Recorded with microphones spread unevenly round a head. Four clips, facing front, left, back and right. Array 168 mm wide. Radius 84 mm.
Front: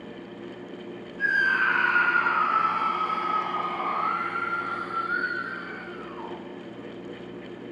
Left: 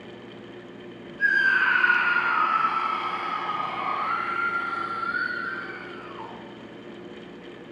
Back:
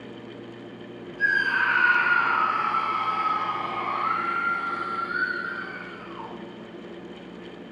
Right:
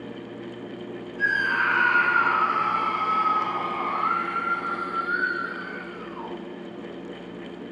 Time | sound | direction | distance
1.2 | a scream | 120° right | 7 m